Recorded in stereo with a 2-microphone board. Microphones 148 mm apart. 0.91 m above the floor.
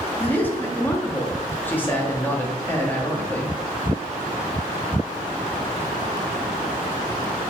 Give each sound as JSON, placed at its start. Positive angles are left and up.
{"t": 0.2, "sound": "a man speaking", "side_deg": 10, "distance_m": 1.6}